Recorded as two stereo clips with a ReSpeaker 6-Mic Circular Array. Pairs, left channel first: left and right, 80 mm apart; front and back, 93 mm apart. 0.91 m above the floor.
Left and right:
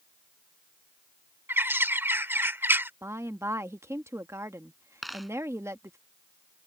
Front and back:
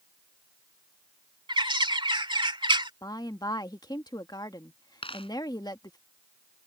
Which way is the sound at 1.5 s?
155° right.